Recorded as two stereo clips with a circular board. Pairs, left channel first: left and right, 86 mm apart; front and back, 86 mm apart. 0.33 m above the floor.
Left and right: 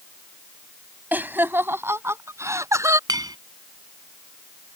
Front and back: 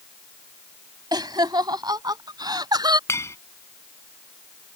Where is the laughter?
155° right; by 3.0 s 145° right.